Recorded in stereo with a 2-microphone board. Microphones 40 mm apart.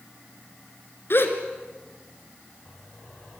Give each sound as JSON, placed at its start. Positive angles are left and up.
{"t": 1.1, "sound": "a gasp", "side_deg": 65, "distance_m": 2.5}